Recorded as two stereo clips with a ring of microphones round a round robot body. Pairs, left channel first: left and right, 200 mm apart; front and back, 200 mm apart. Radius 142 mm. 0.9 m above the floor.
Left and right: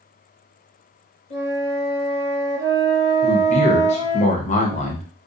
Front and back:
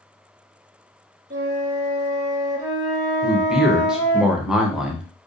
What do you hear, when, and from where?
1.3 s a flute: 130° left, 1.8 m
3.2 s a man speaking: 95° left, 0.7 m